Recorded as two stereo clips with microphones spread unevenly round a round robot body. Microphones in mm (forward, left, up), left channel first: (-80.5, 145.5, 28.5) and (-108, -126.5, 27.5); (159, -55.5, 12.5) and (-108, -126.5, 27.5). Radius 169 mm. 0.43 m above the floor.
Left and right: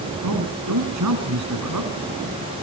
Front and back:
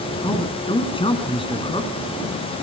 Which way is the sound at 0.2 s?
55° right.